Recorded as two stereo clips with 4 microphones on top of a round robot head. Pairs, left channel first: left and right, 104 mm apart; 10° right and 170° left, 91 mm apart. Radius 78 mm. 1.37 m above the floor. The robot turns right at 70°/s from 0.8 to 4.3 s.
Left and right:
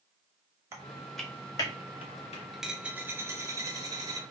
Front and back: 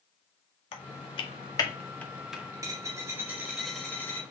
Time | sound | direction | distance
0.7 | typing on a keyboard | 20° right | 1.1 m
2.5 | a dropped coin | 175° right | 0.6 m